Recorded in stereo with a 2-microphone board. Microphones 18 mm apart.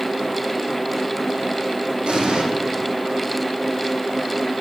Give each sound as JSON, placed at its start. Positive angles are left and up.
{"t": 2.1, "sound": "an explosion", "side_deg": -70, "distance_m": 3.5}